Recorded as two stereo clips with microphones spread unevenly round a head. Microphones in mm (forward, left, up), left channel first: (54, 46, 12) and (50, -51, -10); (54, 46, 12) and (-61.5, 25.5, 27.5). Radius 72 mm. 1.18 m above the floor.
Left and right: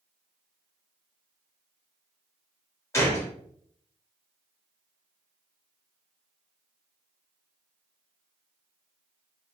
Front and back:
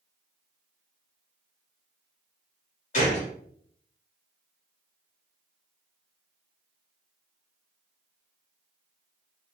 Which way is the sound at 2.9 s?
25° left.